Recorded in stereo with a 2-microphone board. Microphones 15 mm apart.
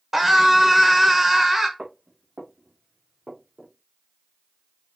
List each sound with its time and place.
0.1 s a scream: 20° right (ahead or behind), 0.9 m
1.8 s footsteps: 60° right (ahead or behind), 3 m; by 3.7 s 40° right (ahead or behind), 3 m